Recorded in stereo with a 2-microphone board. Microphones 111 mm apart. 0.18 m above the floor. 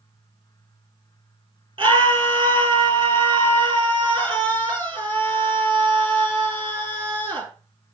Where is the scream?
55° right (ahead or behind), 3.5 m.